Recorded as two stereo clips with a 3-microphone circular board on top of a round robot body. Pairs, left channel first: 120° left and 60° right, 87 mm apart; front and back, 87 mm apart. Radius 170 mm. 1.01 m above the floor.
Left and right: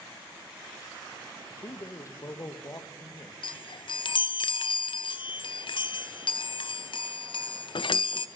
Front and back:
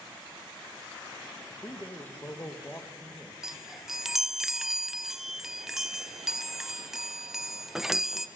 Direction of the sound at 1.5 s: 65° left.